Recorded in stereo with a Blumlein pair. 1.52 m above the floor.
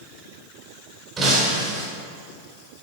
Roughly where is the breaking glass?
Ahead.